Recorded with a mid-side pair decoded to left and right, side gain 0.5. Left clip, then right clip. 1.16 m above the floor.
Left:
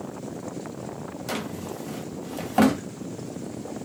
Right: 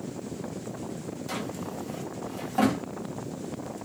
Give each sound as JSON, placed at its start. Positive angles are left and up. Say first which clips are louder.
{"t": 1.3, "sound": "a drawer", "louder": "left 3 dB", "azimuth_deg": 50, "distance_m": 0.8}